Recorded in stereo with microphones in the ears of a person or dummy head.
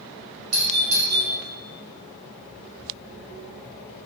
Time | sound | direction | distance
0.5 | a doorbell | 90° right | 1.4 m